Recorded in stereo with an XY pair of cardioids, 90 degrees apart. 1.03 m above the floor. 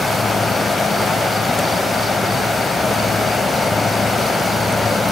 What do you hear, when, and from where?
0.0 s an insect: 35° left